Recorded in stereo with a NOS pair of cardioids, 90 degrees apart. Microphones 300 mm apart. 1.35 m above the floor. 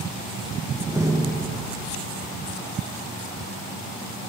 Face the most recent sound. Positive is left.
turn(degrees=-10)